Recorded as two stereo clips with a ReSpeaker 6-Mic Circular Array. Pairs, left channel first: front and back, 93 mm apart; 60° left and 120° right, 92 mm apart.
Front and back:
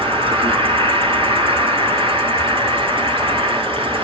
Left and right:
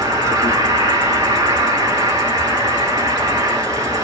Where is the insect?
170° right, 1.4 m.